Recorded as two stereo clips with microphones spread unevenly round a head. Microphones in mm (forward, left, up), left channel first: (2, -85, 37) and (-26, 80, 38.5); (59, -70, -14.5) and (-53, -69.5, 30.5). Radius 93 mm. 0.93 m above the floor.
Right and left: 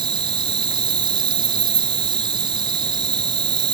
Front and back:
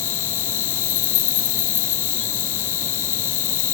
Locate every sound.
0.0 s an insect: 35° left